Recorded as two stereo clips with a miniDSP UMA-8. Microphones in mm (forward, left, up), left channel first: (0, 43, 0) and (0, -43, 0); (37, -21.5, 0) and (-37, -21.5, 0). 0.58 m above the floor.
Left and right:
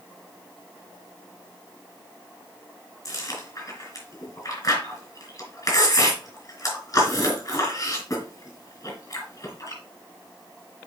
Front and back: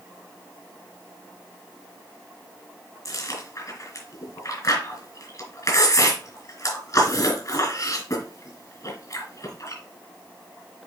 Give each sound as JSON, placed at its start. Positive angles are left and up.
{"t": 3.0, "sound": "chewing", "azimuth_deg": 40, "distance_m": 3.0}